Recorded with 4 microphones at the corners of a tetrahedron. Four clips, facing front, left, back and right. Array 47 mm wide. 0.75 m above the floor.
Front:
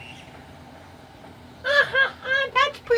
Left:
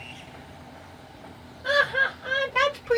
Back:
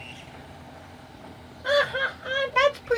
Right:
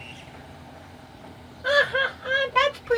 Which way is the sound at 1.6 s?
20° right.